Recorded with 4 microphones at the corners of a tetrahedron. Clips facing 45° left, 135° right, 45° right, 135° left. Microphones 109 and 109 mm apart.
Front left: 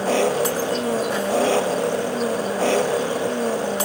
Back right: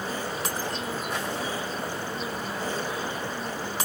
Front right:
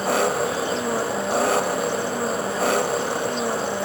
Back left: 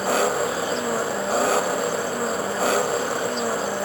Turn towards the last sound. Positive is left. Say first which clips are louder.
# front left 12 dB, even
turn(degrees=45)